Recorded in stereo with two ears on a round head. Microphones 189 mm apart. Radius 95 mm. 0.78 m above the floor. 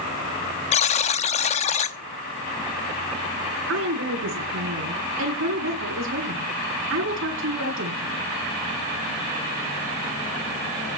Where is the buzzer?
30° left (ahead or behind), 0.9 m.